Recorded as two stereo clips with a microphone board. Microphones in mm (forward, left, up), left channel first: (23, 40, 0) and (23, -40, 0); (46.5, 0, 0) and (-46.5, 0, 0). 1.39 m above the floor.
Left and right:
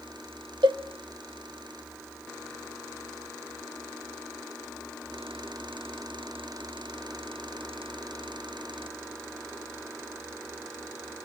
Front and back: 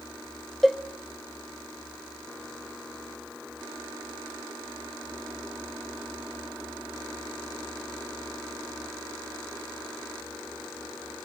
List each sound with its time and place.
0.6 s a cowbell: 90° right, 0.9 m